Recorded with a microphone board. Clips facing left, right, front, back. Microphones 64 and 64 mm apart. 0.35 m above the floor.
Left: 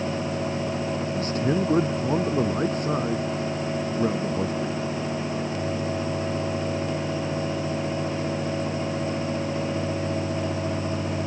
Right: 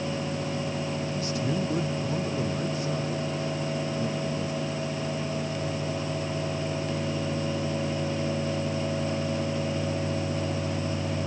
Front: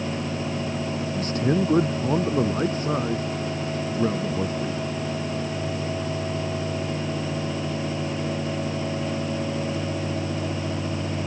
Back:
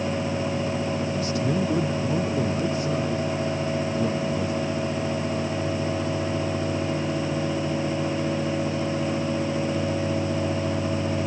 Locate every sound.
1.2 s a man speaking: 40° left; by 4.8 s 50° left